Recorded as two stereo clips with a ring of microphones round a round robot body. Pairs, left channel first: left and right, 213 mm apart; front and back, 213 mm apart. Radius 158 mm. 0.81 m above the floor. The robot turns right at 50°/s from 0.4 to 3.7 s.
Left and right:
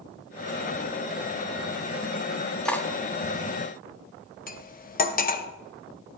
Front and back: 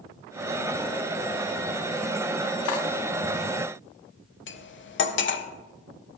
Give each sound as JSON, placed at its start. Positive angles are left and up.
{"t": 2.6, "sound": "cutlery clinking", "azimuth_deg": 5, "distance_m": 0.8}
{"t": 4.5, "sound": "cutlery clinking", "azimuth_deg": 35, "distance_m": 0.8}